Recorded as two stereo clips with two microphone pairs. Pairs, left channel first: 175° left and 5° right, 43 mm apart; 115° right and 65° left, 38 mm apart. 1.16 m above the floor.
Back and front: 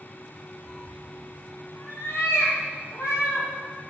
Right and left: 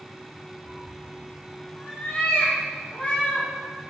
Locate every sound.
0.7 s a cat meowing: 115° right, 1.8 m; by 3.5 s straight behind, 4 m